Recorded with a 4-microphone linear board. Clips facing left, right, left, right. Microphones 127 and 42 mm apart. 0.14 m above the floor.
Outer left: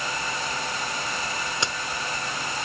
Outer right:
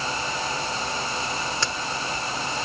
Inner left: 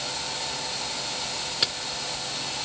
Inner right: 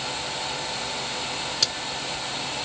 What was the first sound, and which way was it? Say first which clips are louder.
A crack: outer right 1 dB, inner left 1 dB; 20° left (ahead or behind).